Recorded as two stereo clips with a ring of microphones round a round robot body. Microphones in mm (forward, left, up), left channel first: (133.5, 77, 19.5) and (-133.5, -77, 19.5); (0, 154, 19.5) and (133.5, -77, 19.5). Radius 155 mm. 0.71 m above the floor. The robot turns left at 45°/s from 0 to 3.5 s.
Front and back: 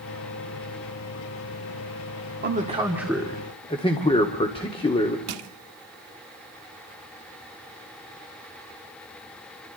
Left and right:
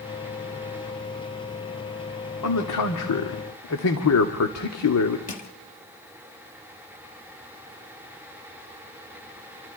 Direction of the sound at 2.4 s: 150° left.